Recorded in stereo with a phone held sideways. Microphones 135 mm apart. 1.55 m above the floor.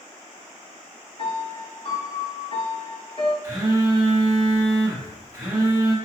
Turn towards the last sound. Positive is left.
turn(degrees=-25)  # may be behind; listen again after turning